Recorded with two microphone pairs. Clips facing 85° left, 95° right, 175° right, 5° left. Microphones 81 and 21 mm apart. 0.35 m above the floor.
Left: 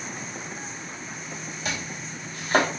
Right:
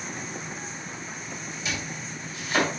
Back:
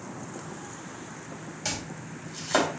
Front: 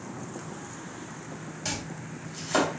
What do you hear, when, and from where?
1.6 s chopping: 110° left, 2.5 m